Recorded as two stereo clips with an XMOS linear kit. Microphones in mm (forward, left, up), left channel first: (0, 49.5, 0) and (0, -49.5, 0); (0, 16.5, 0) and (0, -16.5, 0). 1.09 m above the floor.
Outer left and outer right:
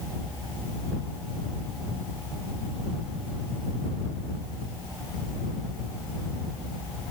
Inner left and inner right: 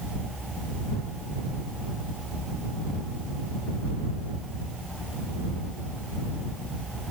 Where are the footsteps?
I don't hear footsteps.